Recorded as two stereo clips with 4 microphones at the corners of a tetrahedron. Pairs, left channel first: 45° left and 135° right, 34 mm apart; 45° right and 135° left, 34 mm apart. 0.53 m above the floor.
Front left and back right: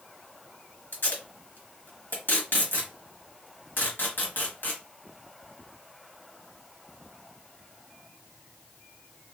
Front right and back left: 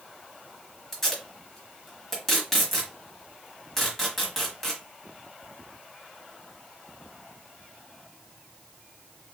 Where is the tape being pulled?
30° left, 1.1 m.